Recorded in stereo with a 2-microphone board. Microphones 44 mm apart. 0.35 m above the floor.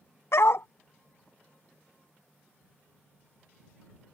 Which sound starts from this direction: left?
A dog barking, at 0.3 s.